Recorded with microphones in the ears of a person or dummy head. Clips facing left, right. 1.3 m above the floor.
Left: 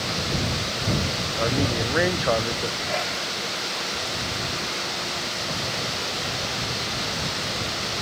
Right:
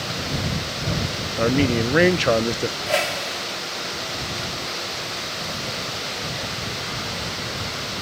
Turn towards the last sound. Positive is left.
turn(degrees=-75)  # may be behind; listen again after turning